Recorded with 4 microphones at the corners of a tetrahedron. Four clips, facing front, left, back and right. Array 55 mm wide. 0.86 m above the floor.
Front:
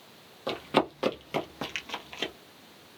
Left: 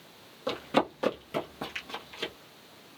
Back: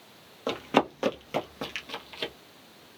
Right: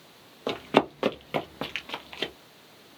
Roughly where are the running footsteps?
Behind right.